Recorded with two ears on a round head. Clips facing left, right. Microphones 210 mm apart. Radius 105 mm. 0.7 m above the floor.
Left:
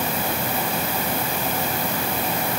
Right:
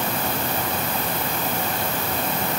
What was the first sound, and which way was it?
Only background noise.